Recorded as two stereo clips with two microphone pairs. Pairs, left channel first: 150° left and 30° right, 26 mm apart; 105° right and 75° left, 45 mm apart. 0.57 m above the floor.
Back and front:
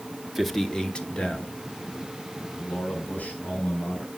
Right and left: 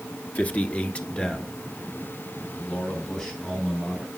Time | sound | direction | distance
0.3 | a man speaking | 110° right | 0.9 m